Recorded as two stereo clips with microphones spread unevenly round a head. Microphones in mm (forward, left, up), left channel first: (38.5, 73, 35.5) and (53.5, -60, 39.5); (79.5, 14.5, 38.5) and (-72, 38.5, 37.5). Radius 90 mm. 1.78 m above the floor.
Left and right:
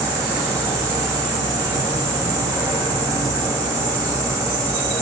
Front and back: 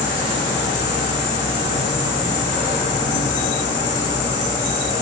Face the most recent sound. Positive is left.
turn(degrees=-15)